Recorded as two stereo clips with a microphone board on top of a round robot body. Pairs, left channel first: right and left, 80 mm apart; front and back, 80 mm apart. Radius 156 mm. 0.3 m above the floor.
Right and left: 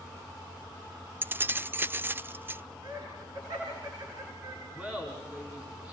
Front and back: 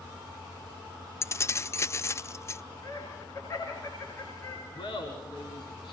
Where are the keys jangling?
35° left, 0.6 m.